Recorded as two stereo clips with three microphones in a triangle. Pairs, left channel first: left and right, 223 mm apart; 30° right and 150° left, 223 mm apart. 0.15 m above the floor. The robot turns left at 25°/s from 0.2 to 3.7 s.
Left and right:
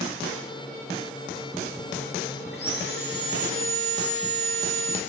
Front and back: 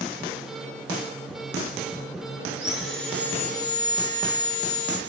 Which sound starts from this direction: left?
Sawing, at 2.5 s.